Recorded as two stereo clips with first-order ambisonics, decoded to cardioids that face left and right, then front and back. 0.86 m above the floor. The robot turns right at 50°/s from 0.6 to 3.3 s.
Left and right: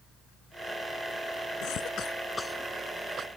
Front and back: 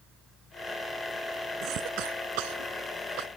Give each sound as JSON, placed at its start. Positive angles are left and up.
{"t": 1.6, "sound": "a cough", "azimuth_deg": 130}